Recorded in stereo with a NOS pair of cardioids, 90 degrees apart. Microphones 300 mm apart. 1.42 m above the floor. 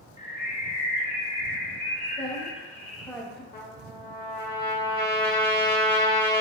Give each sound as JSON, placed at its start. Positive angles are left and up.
{"t": 0.2, "sound": "a bird", "azimuth_deg": 20, "distance_m": 0.7}
{"t": 2.2, "sound": "a woman speaking", "azimuth_deg": 5, "distance_m": 0.7}
{"t": 3.5, "sound": "a trumpet", "azimuth_deg": 30, "distance_m": 0.9}